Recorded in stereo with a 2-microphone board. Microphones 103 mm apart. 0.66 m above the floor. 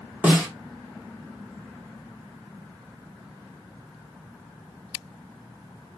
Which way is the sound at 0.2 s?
15° right (ahead or behind).